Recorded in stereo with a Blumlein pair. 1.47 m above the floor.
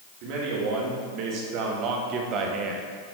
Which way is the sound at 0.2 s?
45° right.